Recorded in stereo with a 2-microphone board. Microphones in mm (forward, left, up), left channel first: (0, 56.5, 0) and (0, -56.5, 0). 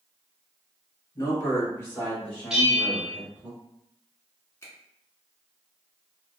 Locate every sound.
1.1 s a man speaking: 30° left (ahead or behind), 1.6 m; by 3.5 s 15° right (ahead or behind), 1.4 m
2.5 s a bell: 5° right (ahead or behind), 0.9 m
4.6 s a finger snap: 25° left (ahead or behind), 1.2 m